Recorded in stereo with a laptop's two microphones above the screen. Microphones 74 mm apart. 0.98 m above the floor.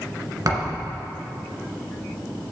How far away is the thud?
About 1.9 m.